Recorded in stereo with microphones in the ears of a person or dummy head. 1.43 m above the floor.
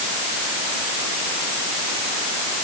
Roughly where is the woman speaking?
No woman speaking in this recording.